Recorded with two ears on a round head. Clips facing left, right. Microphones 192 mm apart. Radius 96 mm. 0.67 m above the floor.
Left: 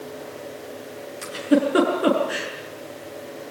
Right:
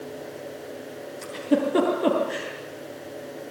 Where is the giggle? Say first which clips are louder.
Left 4 dB; 5° left (ahead or behind), 5.5 m.